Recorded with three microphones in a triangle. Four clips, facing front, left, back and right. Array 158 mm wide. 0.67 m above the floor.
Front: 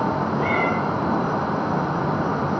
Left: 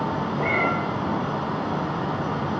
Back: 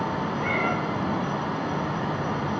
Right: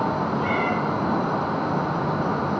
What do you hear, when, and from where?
0.4 s a cat meowing: 20° left, 3 m